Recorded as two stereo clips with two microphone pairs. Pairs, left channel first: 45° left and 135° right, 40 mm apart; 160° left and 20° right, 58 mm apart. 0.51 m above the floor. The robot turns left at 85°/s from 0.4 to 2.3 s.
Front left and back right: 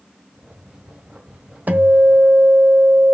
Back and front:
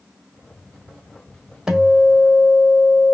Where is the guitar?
100° right, 1.5 m; by 3.1 s 150° right, 1.5 m.